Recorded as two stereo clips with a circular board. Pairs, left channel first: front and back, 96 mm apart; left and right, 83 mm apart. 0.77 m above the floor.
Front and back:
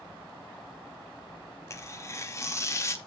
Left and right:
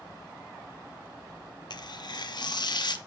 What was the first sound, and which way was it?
Tearing paper, 60° left.